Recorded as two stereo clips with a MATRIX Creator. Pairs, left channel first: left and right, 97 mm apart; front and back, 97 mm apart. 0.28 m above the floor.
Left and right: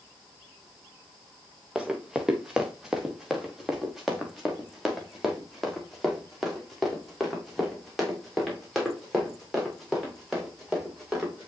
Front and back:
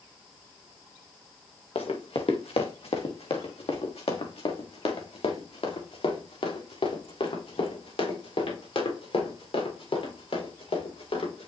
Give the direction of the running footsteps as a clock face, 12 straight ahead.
12 o'clock.